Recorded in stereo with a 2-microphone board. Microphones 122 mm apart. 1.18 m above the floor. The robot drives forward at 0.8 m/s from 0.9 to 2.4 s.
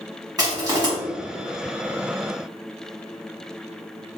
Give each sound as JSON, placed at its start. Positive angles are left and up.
{"t": 0.4, "sound": "crushing", "side_deg": -30, "distance_m": 2.0}